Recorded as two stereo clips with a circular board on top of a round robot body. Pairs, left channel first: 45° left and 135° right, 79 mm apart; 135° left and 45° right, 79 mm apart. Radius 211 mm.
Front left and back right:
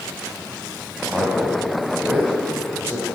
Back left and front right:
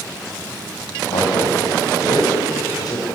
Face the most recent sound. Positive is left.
turn(degrees=170)